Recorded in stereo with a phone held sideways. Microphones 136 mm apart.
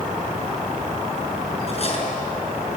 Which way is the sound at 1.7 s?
45° left (ahead or behind).